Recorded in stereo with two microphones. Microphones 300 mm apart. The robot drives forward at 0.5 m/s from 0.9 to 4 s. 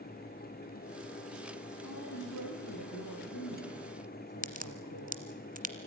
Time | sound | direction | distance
1.8 | a woman speaking | 80° left | 7.5 m
4.4 | a crack | 30° right (ahead or behind) | 1.5 m